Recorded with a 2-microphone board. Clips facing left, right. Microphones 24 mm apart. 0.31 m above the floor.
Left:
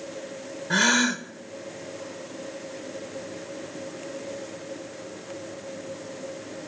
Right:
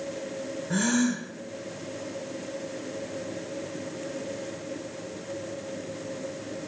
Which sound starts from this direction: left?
A gasp, at 0.7 s.